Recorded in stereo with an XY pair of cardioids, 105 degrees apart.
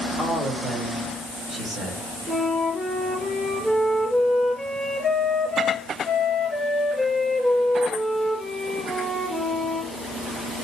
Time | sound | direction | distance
0.2 | a man speaking | 35° right | 5.5 m
2.3 | a flute | 15° right | 6.5 m